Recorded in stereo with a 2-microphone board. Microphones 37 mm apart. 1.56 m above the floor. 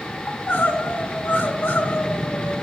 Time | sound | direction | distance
0.3 | crying | 55° left (ahead or behind) | 1.2 m